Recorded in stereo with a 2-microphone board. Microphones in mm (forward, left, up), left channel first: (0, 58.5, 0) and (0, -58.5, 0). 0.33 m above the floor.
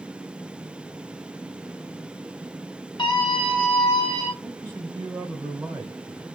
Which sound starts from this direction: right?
A man speaking, at 4.4 s.